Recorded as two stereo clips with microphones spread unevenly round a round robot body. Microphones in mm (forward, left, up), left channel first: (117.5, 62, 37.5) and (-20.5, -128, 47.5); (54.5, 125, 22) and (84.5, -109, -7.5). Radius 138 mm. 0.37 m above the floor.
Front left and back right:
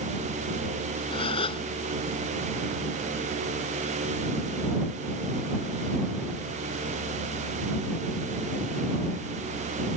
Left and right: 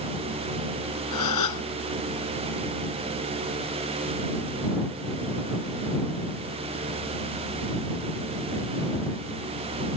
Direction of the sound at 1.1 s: 125° left.